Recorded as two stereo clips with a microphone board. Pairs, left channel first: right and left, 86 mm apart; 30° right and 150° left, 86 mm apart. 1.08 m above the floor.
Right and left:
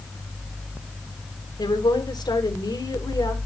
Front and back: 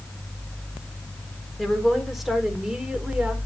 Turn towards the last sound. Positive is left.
turn(degrees=-130)